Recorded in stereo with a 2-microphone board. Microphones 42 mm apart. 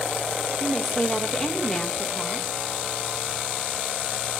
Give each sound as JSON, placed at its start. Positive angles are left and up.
{"t": 0.6, "sound": "a woman speaking", "side_deg": 15, "distance_m": 1.7}